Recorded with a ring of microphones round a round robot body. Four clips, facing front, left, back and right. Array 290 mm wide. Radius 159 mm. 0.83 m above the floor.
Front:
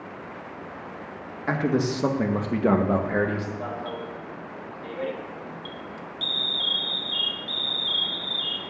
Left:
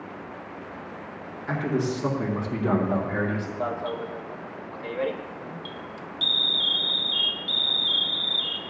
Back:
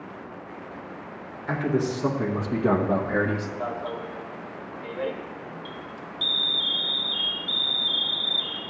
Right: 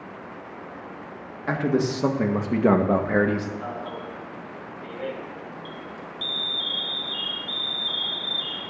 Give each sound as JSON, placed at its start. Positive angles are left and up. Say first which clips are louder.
{"t": 1.5, "sound": "a man speaking", "louder": "right 3 dB, front 1 dB", "azimuth_deg": -40, "distance_m": 1.7}
{"t": 3.6, "sound": "an alarm", "louder": "left 4 dB, back 1 dB", "azimuth_deg": 90, "distance_m": 1.3}